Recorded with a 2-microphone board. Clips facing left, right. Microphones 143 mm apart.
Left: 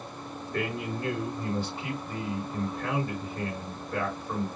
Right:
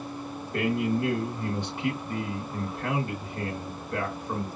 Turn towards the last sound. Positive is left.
turn(degrees=-20)  # may be behind; listen again after turning